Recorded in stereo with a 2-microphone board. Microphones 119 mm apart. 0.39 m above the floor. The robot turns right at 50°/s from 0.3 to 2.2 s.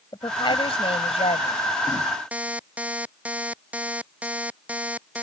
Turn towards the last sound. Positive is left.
turn(degrees=-10)  # may be behind; listen again after turning